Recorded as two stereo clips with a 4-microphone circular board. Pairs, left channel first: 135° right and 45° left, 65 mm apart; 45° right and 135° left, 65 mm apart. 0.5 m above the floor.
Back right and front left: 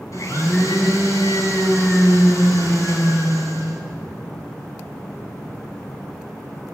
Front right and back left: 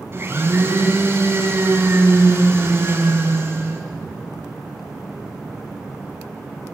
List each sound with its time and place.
0.1 s a blender: 170° right, 4.5 m